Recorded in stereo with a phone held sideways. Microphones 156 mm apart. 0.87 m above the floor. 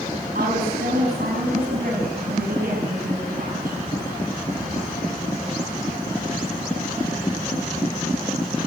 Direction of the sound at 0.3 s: 70° right (ahead or behind).